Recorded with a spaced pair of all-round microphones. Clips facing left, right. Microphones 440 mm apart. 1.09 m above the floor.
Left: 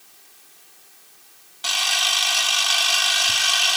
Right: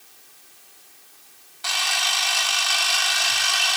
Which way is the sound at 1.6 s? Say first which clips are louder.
Even; 50° left (ahead or behind).